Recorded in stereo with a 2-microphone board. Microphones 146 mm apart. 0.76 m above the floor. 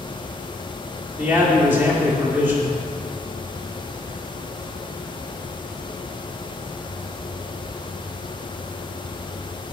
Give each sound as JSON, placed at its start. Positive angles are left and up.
{"t": 1.2, "sound": "a man speaking", "side_deg": -15, "distance_m": 1.8}